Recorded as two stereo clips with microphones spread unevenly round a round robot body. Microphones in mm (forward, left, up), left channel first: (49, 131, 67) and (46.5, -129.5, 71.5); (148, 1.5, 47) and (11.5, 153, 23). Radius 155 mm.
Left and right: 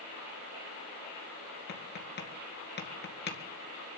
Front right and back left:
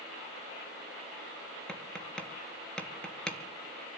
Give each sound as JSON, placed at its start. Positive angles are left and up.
{"t": 1.7, "sound": "tapping", "azimuth_deg": 35, "distance_m": 2.0}